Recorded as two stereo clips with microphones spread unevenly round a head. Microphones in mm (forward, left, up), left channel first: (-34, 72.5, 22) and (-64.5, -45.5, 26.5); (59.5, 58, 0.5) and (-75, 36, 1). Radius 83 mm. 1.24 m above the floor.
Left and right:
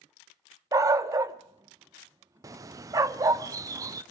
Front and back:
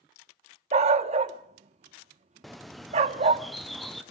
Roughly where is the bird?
Right.